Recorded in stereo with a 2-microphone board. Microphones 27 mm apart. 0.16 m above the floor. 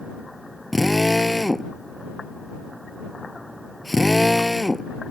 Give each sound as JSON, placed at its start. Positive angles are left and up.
{"t": 0.7, "sound": "a drill", "side_deg": 0}